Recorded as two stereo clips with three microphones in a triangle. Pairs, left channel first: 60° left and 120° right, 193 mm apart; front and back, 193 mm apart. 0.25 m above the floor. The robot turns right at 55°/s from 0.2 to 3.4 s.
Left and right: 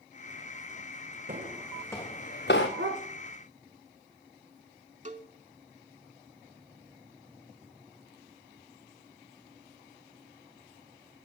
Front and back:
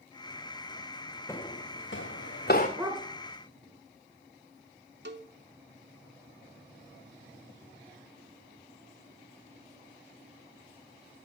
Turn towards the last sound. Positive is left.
turn(degrees=-165)